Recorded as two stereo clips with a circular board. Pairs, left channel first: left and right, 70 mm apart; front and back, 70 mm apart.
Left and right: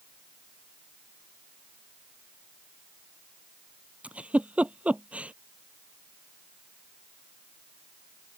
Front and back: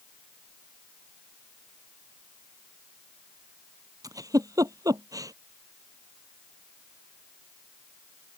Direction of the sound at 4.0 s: 160° right.